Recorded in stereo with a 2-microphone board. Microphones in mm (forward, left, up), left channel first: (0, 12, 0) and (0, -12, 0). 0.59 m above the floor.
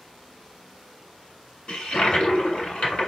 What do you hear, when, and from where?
1.7 s a toilet flushing: 50° left (ahead or behind), 1.6 m